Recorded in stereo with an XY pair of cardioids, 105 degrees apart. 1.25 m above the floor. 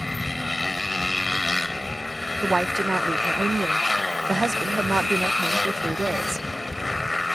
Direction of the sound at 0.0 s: 20° left.